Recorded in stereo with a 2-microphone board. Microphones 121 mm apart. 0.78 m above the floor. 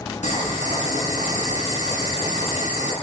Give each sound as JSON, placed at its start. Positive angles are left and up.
{"t": 0.2, "sound": "boiling", "side_deg": 85, "distance_m": 5.0}